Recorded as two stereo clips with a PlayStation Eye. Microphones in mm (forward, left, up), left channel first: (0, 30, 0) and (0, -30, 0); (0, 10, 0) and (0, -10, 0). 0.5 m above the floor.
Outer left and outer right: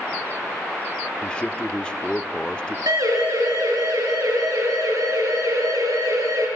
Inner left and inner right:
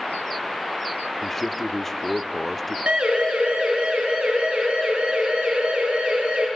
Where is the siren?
80° right, 7.5 m; by 6.5 s 85° right, 9.5 m.